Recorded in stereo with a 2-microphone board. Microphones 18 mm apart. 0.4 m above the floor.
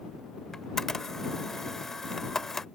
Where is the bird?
No bird in this recording.